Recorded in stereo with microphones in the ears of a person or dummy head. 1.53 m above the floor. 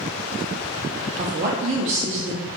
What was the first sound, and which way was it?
A woman speaking, 40° right (ahead or behind).